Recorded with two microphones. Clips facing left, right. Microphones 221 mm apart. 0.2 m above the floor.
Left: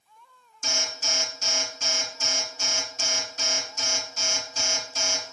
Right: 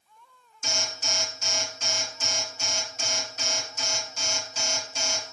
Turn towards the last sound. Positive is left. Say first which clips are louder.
# even
turn(degrees=45)  # may be behind; listen again after turning